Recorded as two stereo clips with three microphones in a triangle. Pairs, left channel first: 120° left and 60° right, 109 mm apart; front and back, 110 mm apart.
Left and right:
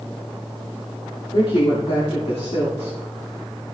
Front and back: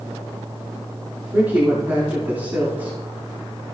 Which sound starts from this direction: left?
A woman speaking, at 1.3 s.